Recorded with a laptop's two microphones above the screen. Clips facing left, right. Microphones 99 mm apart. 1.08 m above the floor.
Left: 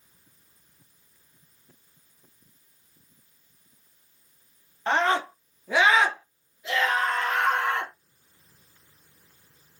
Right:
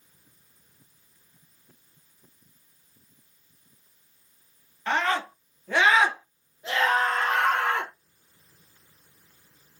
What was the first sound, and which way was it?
A scream, 30° left (ahead or behind).